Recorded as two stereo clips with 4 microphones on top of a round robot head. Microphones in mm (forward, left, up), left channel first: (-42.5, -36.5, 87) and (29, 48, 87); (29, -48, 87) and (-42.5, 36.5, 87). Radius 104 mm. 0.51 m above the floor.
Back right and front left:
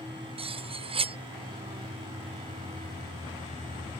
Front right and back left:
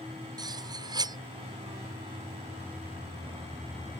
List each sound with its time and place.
0.4 s cutlery clinking: 80° left